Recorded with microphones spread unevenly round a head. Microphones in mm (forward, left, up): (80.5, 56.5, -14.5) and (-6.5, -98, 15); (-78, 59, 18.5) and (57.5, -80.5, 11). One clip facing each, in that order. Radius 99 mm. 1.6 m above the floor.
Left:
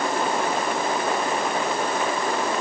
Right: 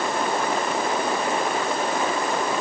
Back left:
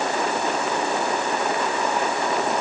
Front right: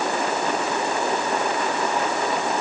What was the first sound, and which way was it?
Only background noise.